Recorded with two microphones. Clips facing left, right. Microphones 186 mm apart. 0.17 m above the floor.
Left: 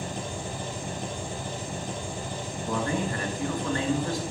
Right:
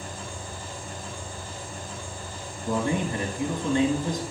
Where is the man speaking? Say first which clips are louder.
Right 3 dB; 20° right (ahead or behind), 2.5 m.